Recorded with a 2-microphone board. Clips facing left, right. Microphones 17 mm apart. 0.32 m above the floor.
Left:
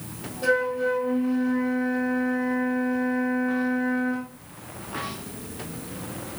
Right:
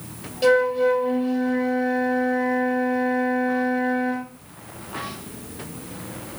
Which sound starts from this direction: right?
A flute, at 0.4 s.